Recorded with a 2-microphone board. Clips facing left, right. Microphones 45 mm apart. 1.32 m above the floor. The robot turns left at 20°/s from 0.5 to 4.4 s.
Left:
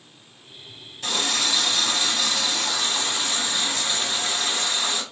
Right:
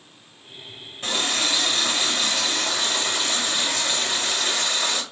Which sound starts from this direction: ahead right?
A running tap, at 1.0 s.